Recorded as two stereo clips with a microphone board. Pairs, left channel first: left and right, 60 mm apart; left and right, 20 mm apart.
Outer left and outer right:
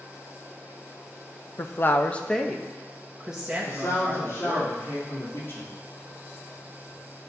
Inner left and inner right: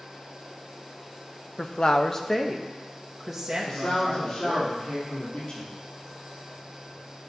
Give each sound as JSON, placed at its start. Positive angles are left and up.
{"t": 1.6, "sound": "a woman speaking", "side_deg": 45, "distance_m": 0.5}
{"t": 3.6, "sound": "a man speaking", "side_deg": 50, "distance_m": 4.0}